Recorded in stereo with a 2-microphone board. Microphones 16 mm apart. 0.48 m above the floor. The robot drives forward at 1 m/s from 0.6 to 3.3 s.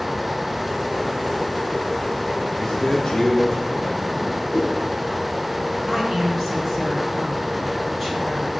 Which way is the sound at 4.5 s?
25° left (ahead or behind).